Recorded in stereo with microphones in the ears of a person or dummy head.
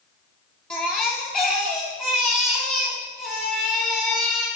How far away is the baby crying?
About 2.0 m.